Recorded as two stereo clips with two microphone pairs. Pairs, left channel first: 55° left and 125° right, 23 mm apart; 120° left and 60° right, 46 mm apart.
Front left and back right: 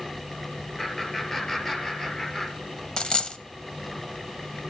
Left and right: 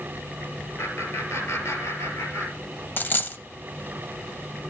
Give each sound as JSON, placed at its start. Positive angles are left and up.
{"t": 0.8, "sound": "laughter", "azimuth_deg": 120, "distance_m": 5.0}
{"t": 3.0, "sound": "a dropped coin", "azimuth_deg": 95, "distance_m": 0.7}